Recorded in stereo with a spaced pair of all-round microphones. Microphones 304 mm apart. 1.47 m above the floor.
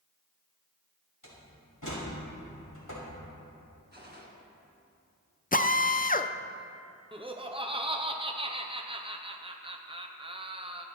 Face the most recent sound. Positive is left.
turn(degrees=-15)  # may be behind; listen again after turning